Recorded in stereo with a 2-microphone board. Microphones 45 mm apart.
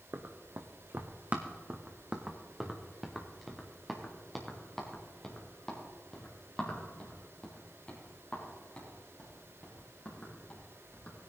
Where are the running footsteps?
65° right (ahead or behind), 1.4 m; by 11.2 s 25° left (ahead or behind), 6.5 m.